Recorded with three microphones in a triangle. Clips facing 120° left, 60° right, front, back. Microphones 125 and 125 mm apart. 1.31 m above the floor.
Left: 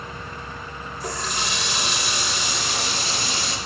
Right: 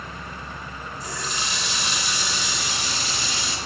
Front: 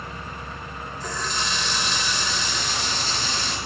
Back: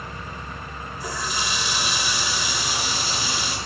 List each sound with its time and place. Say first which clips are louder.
1.0 s a running tap: left 4 dB, back 1 dB; 100° left, 3.5 m